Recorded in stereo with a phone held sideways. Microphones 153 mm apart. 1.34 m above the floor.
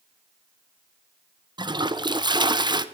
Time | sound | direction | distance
1.6 | a toilet flushing | 30° right (ahead or behind) | 0.6 m